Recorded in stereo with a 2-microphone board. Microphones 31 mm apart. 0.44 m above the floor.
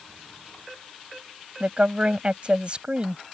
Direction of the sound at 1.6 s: 40° right (ahead or behind).